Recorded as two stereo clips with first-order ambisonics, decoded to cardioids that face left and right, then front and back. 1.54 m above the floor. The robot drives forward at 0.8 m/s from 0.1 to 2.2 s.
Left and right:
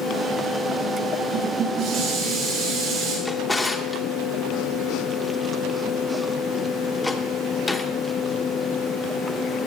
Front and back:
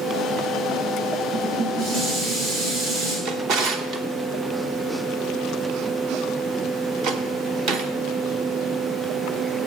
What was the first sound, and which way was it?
Dishes clattering, 140° right.